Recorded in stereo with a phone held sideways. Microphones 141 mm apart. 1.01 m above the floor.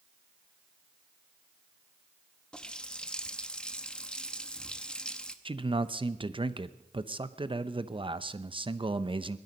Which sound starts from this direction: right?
A man speaking, at 5.5 s.